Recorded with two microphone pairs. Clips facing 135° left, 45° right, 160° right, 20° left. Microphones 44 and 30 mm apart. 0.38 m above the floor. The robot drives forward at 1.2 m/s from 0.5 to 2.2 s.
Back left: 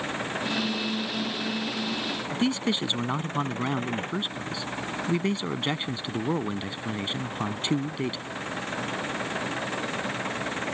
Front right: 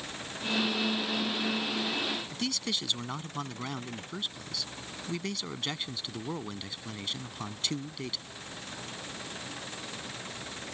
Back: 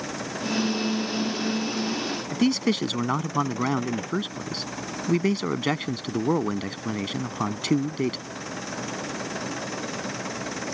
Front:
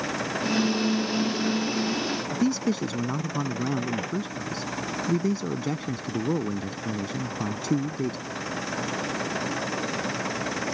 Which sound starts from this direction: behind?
A man speaking, at 2.3 s.